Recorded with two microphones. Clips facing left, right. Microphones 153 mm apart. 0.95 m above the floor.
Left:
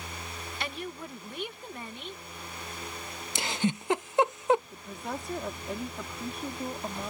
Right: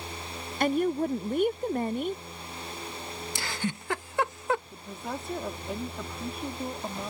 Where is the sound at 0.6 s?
45° right (ahead or behind).